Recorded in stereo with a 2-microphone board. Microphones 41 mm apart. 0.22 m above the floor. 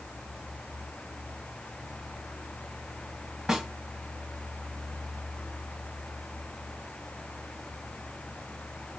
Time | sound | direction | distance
3.5 | a snare drum | 10° right (ahead or behind) | 1.3 m